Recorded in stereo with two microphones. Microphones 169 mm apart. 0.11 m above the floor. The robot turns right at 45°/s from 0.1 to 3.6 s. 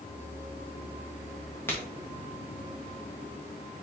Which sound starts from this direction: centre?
A crack, at 1.7 s.